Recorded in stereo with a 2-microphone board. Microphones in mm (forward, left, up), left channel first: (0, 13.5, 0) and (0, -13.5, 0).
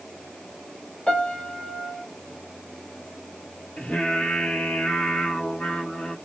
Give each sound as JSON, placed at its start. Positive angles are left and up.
{"t": 1.1, "sound": "a piano", "side_deg": 40, "distance_m": 1.3}
{"t": 3.8, "sound": "singing", "side_deg": 70, "distance_m": 1.7}